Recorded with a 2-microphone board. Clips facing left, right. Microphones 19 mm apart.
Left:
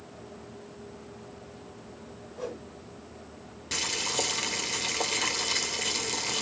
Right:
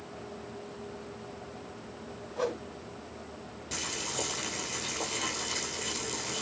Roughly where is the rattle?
No rattle in this recording.